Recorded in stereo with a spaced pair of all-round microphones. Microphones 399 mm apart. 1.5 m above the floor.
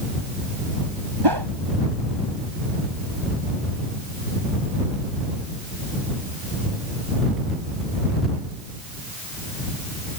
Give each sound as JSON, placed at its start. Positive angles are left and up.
{"t": 1.2, "sound": "a whoosh", "side_deg": -85}